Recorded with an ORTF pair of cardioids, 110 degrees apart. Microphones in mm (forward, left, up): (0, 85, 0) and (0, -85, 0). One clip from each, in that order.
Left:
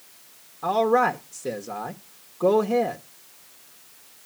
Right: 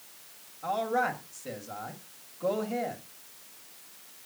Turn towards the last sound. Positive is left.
turn(degrees=65)